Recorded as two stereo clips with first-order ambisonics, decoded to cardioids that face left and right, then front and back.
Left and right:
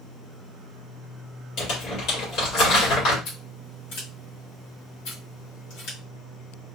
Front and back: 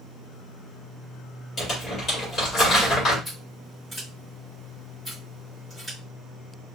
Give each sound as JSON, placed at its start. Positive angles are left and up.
{"t": 1.6, "sound": "crumpling", "azimuth_deg": 60, "distance_m": 2.0}
{"t": 3.2, "sound": "scissors", "azimuth_deg": 90, "distance_m": 2.0}